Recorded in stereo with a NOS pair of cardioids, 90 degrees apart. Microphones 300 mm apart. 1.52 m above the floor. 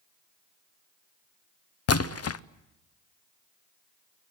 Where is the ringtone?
No ringtone in this recording.